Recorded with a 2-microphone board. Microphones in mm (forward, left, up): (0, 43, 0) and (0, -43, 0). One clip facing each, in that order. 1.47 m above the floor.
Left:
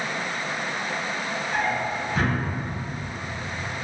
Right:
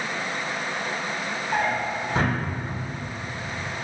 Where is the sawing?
I don't hear sawing.